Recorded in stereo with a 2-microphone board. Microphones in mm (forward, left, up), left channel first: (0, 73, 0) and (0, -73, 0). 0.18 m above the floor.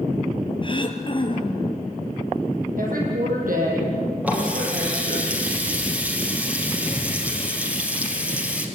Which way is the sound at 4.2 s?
10° right (ahead or behind).